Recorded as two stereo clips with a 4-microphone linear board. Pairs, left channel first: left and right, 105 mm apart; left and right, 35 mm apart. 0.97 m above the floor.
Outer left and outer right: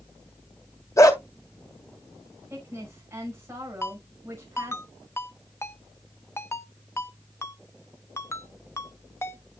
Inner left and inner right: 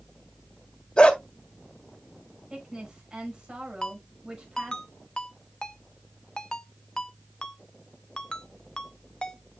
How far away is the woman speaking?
About 6 m.